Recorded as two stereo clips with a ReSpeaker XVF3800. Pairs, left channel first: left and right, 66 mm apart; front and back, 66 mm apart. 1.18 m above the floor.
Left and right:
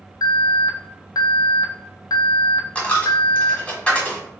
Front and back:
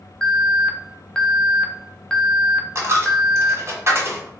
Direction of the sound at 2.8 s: 155° left.